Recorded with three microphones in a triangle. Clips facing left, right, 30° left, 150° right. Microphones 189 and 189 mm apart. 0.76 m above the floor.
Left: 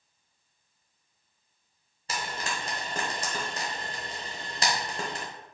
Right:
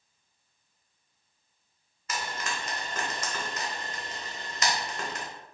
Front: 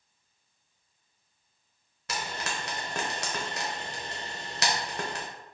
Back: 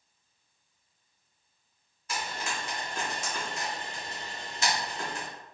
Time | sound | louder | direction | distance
2.1 | frying | left 1 dB, even | 35° left | 1.0 m